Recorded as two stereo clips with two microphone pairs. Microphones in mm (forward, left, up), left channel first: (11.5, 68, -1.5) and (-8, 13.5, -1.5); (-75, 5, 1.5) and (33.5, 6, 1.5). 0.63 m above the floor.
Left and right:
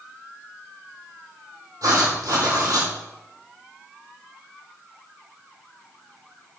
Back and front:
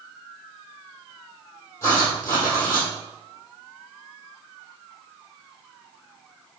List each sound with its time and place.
1.8 s writing: 115° right, 3.5 m